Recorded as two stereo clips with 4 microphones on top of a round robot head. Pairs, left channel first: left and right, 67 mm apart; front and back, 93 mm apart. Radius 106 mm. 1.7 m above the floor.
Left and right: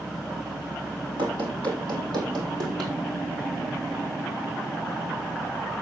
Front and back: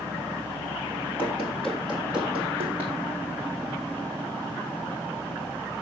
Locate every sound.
1.2 s running footsteps: 80° right, 3 m; by 2.9 s 105° right, 4.5 m